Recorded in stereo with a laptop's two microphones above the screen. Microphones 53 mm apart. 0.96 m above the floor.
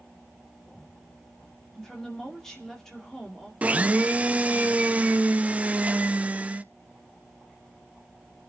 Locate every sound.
1.8 s a woman speaking: 10° left (ahead or behind), 2 m
3.6 s a blender: 25° right (ahead or behind), 0.6 m